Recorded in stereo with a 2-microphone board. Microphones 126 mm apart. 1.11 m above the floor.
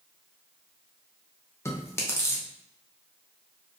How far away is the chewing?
About 0.6 m.